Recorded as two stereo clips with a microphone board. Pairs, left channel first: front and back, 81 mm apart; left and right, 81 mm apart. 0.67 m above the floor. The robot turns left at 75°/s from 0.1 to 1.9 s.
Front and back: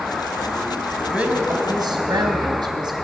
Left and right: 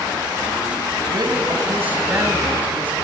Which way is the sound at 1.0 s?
90° right.